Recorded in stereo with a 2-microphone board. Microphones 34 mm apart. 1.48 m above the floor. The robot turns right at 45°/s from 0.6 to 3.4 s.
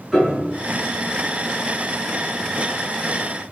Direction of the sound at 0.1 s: 10° right (ahead or behind).